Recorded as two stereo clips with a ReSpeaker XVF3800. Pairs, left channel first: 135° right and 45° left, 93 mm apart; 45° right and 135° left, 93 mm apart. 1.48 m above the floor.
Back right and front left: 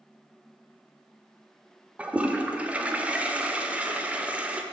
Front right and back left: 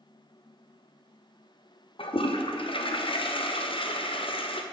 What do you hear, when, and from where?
2.0 s a toilet flushing: 30° right, 0.7 m